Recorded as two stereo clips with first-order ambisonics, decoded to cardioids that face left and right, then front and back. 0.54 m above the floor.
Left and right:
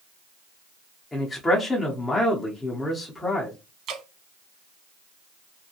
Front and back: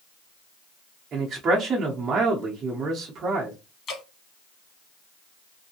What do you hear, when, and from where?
1.1 s a man speaking: 160° left, 0.6 m
3.9 s dripping: 50° right, 0.8 m